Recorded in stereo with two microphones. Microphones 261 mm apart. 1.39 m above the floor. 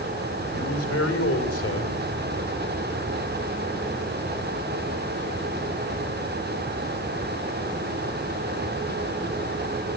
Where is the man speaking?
65° left (ahead or behind), 5 m.